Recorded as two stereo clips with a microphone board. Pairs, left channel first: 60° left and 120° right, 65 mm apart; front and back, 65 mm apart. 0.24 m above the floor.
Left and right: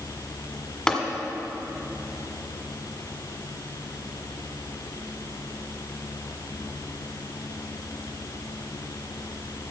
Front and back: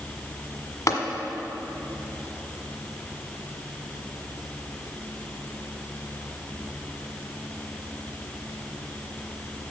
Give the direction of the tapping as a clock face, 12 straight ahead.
1 o'clock.